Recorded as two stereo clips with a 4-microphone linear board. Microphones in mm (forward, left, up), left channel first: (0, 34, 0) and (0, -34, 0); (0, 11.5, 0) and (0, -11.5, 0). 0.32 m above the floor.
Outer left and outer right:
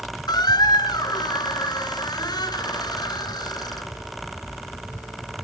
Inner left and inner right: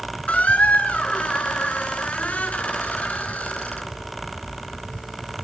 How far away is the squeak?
About 2 m.